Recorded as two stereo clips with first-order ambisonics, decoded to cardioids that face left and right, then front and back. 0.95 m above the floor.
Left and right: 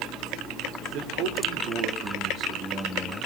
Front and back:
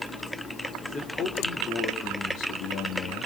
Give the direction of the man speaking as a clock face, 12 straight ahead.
2 o'clock.